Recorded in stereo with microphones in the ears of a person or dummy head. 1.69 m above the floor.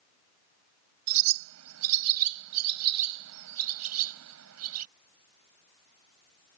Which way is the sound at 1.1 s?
80° right.